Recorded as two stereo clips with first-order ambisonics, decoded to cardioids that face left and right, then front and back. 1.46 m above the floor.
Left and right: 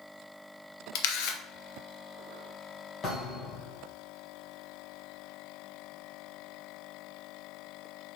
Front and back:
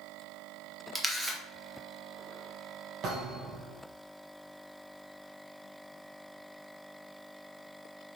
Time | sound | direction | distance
0.9 | a camera shutter | 95° left | 0.7 m
3.0 | a thud | 140° left | 2 m